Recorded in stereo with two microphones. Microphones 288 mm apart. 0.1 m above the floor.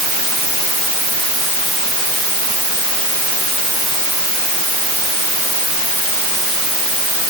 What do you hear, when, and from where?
Only background noise.